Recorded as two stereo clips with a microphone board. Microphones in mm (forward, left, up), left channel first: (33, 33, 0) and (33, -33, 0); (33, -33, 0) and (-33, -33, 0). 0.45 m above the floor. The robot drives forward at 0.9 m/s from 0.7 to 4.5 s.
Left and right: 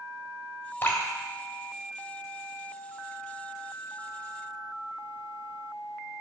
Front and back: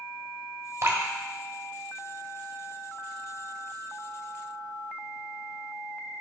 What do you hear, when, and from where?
0.8 s dripping: 145° left, 1.6 m; by 1.0 s 150° left, 1.8 m